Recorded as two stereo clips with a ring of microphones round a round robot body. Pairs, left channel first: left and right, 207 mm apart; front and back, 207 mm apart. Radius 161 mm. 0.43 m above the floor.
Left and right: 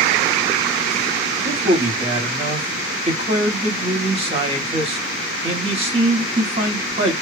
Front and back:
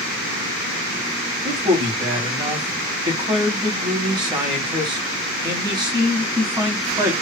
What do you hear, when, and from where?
1.4 s a man speaking: 125° right, 1.2 m